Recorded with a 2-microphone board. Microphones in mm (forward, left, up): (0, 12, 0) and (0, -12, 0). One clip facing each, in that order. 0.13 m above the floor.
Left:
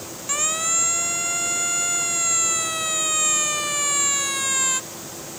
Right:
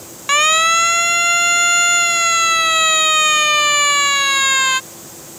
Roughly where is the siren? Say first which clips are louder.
Right 12 dB; right.